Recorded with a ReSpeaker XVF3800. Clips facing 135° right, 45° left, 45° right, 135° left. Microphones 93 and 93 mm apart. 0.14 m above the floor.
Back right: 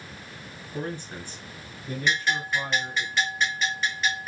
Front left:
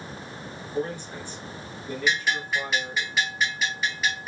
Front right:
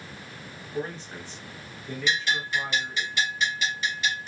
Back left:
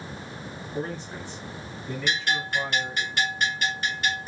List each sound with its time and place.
0.7 s a man speaking: 145° right, 1.5 m
2.1 s a bell: 130° left, 1.5 m